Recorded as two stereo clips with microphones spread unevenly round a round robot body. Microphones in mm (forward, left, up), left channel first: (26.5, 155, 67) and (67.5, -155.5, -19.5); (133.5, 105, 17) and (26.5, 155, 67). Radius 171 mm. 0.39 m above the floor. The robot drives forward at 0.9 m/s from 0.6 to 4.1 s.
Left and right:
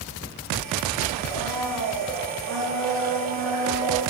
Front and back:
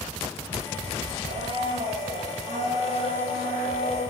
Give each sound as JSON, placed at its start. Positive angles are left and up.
{"t": 1.2, "sound": "a blender", "azimuth_deg": 180, "distance_m": 1.5}